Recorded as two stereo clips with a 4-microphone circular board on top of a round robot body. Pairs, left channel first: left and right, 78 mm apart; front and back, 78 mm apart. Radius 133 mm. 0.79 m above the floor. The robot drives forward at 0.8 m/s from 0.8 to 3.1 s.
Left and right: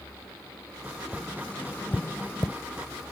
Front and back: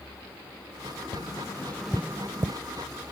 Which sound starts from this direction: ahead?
Tapping, at 1.1 s.